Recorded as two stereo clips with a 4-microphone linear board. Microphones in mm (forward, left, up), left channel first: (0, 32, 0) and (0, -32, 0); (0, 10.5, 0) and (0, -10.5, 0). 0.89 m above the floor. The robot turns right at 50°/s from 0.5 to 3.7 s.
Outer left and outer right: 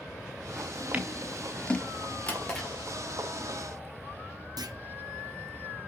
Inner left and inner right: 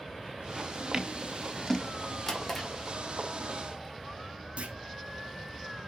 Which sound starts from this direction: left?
A drawer, at 2.3 s.